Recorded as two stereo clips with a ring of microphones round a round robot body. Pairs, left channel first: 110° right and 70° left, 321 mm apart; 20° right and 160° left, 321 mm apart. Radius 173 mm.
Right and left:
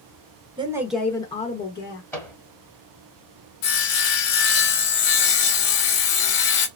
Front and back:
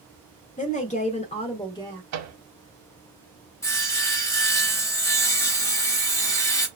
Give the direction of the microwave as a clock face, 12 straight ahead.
6 o'clock.